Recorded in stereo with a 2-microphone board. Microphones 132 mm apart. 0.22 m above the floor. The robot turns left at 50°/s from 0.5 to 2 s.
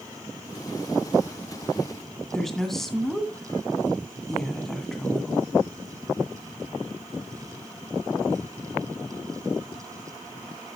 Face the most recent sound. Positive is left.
turn(degrees=0)  # may be behind; listen again after turning